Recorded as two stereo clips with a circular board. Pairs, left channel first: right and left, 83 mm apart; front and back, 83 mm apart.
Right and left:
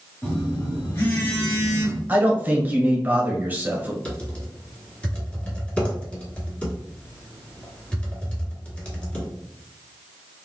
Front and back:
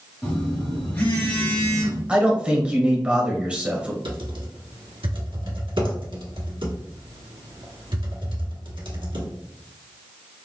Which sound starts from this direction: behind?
Typing on a keyboard, at 4.0 s.